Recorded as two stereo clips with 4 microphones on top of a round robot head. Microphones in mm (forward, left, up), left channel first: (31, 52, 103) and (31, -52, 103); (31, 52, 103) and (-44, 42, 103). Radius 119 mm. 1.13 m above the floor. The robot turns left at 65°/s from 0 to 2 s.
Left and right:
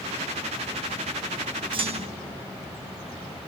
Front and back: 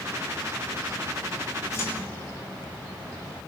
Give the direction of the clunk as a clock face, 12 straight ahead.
2 o'clock.